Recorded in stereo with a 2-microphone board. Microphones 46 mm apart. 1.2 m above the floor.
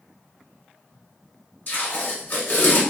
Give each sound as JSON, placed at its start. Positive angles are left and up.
{"t": 1.7, "sound": "tape being pulled", "side_deg": 50, "distance_m": 1.4}